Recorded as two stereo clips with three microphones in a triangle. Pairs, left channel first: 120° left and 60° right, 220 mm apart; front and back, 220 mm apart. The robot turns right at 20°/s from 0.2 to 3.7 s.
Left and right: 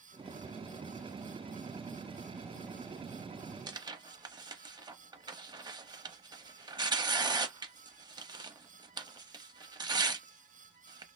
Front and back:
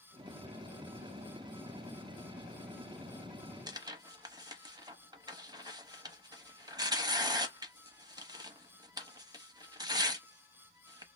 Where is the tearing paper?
120° right, 0.6 m.